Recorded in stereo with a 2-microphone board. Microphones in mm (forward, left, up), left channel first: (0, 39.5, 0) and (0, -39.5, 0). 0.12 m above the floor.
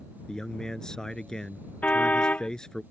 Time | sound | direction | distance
0.3 | a man speaking | 10° left (ahead or behind) | ?
1.8 | a car horn | 20° left (ahead or behind) | ?